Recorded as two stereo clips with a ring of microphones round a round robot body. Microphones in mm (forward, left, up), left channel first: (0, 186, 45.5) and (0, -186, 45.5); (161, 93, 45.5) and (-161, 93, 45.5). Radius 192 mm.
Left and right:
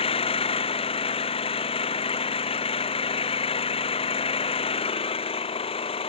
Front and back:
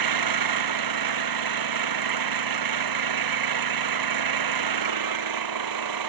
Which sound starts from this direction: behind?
An engine running, at 0.0 s.